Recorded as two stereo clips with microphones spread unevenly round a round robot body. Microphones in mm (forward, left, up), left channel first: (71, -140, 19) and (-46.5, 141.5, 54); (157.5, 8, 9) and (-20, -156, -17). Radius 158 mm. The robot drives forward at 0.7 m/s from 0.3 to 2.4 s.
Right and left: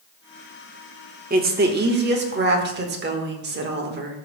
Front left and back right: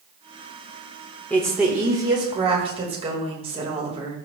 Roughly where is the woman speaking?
Behind left.